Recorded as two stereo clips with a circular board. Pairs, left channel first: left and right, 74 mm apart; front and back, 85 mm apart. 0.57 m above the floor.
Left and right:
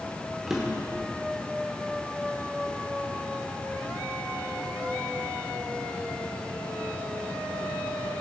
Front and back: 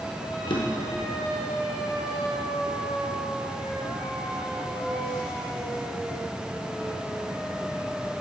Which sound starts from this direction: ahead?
A drawer, at 0.5 s.